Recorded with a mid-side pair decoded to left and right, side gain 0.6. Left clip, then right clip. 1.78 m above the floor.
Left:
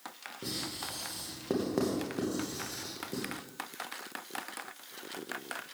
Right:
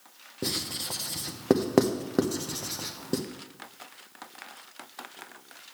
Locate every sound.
0.4 s writing: 55° right, 0.9 m